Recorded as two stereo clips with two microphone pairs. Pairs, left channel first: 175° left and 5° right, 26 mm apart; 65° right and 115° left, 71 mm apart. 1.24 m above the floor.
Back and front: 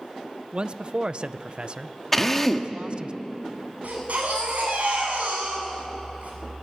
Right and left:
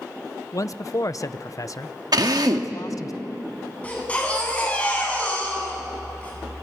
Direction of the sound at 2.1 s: 100° left.